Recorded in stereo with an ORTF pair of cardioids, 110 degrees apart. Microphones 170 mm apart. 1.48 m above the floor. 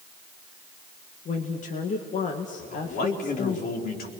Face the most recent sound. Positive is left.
turn(degrees=65)